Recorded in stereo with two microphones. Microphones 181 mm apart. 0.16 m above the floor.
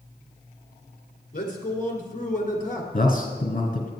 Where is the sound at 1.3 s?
50° left (ahead or behind), 1.9 m.